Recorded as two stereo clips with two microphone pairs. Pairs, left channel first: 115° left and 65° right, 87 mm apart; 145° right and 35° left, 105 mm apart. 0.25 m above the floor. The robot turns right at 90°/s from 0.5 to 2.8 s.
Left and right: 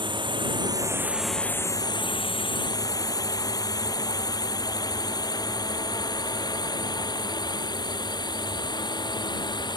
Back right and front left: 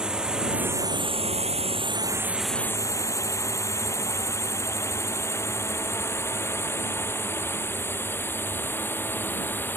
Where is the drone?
45° right; by 9.8 s 145° left.